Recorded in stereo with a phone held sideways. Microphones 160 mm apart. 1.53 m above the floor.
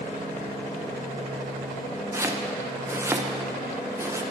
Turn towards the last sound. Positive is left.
turn(degrees=-15)  # may be behind; listen again after turning